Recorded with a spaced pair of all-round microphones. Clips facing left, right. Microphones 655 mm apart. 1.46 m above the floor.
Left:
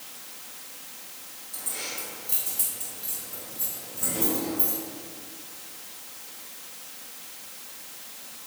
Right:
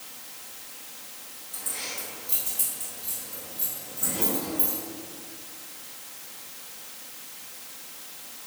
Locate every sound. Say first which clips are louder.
1.5 s keys jangling: left 1 dB; 10° right (ahead or behind), 4 m; by 4.8 s 10° left (ahead or behind), 4.5 m